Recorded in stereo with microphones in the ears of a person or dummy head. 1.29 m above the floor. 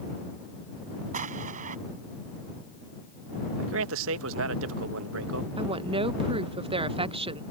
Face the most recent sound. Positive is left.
turn(degrees=-25)  # may be behind; listen again after turning